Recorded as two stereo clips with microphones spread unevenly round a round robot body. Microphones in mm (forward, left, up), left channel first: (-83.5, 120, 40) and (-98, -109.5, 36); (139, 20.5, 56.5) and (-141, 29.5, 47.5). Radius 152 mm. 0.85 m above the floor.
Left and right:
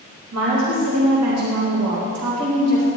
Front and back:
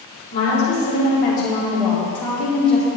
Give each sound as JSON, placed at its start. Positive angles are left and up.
{"t": 0.3, "sound": "a woman speaking", "azimuth_deg": -70, "distance_m": 3.5}